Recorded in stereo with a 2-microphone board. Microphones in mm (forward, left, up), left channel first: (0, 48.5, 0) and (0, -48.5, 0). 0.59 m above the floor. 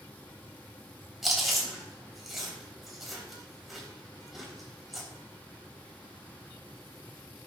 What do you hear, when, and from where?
1.2 s chewing: centre (ahead or behind), 3.5 m